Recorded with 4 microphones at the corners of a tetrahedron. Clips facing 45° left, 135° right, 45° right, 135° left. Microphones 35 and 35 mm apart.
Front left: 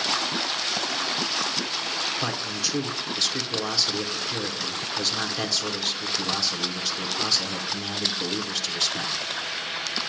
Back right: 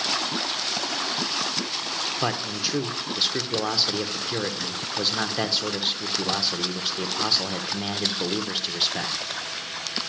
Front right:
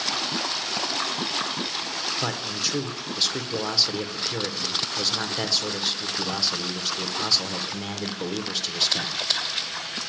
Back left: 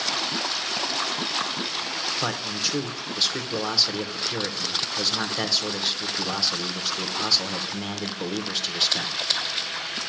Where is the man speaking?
140° right, 0.8 m.